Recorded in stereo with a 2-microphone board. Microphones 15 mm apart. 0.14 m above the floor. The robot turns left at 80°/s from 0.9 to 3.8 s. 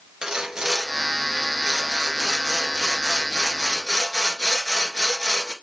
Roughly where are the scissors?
I don't hear scissors.